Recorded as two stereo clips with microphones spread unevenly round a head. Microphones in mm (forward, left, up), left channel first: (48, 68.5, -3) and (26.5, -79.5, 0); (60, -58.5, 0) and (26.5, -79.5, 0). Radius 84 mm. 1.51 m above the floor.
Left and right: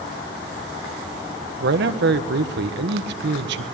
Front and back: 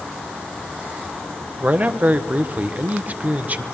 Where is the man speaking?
95° right, 1.5 m.